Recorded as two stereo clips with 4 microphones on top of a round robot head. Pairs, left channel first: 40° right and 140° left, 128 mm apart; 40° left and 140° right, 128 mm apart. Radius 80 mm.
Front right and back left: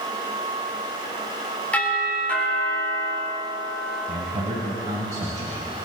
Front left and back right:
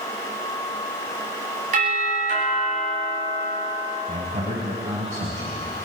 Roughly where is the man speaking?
Behind.